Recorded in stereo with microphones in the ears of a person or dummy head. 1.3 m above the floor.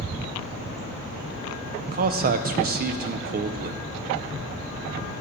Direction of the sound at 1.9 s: 45° right (ahead or behind).